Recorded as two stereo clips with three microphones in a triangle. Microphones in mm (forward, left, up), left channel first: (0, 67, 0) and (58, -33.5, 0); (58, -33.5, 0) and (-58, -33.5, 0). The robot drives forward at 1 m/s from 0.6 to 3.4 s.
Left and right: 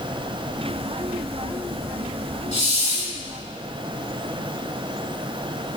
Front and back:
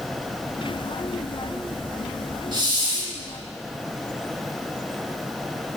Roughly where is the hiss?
Behind left.